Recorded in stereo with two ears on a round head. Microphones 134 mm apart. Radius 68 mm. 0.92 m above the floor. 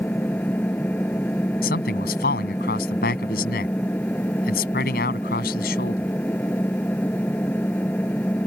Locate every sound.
0.0 s an engine running: 10° left (ahead or behind)
1.6 s a man speaking: 70° left (ahead or behind)